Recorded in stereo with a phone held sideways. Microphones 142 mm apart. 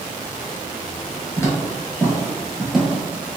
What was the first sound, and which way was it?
Footsteps, 20° left (ahead or behind).